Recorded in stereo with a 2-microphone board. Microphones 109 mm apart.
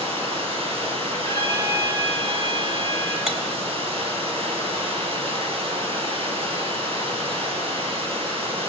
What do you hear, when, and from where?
0.0 s running water: 60° right (ahead or behind), 4 m
1.2 s a trumpet: 45° right (ahead or behind), 4.5 m
3.3 s cutlery clinking: centre (ahead or behind), 1.6 m